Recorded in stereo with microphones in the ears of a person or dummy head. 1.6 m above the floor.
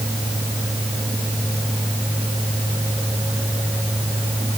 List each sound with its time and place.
Only background noise.